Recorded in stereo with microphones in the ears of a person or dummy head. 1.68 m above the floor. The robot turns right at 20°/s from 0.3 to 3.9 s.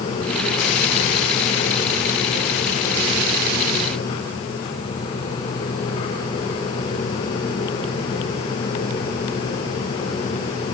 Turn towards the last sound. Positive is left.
No sound to turn to.